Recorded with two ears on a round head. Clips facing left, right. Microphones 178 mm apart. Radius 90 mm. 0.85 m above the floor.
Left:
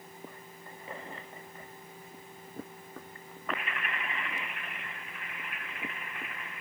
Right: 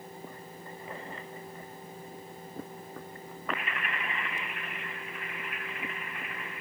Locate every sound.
Only background noise.